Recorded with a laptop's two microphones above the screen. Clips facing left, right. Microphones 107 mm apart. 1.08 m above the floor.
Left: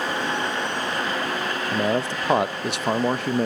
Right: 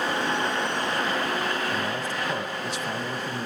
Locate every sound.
1.7 s a man speaking: 70° left (ahead or behind), 0.7 m